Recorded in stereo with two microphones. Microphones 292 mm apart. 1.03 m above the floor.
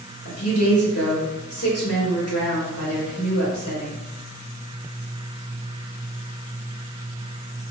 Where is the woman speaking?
55° left (ahead or behind), 1.6 m.